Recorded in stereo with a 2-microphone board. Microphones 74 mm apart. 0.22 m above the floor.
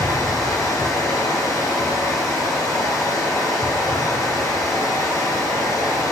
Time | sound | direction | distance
0.0 | running water | 50° left (ahead or behind) | 3.5 m